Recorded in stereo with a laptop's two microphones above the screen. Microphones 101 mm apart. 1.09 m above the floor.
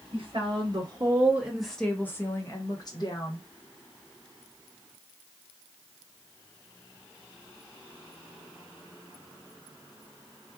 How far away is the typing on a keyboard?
No typing on a keyboard in this recording.